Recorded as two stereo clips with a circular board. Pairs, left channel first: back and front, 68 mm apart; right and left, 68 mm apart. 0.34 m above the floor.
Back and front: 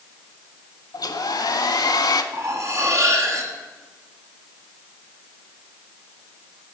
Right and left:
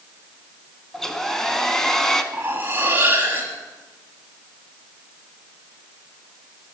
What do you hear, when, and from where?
0.9 s a hair dryer: 175° right, 0.5 m
2.3 s cutlery clinking: 35° left, 1.2 m